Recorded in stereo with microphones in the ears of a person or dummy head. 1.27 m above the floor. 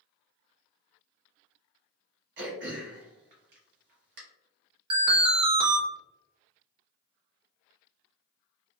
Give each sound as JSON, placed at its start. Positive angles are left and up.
{"t": 2.4, "sound": "throat clearing", "side_deg": -50, "distance_m": 0.8}
{"t": 4.9, "sound": "an alarm", "side_deg": -30, "distance_m": 0.8}